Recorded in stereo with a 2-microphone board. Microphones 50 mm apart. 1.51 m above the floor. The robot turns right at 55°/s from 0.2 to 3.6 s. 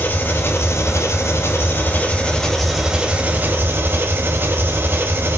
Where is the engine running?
45° left, 3 m; by 5.4 s 125° right, 3 m.